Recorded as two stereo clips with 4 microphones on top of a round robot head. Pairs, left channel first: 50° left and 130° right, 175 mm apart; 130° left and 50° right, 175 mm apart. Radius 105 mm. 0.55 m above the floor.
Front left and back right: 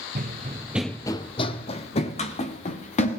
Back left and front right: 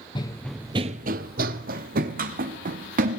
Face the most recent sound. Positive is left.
turn(degrees=-5)